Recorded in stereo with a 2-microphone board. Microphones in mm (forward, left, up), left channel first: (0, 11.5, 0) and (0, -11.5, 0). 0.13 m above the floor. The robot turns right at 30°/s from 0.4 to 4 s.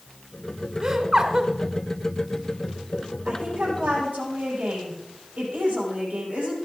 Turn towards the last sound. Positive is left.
turn(degrees=-70)  # may be behind; listen again after turning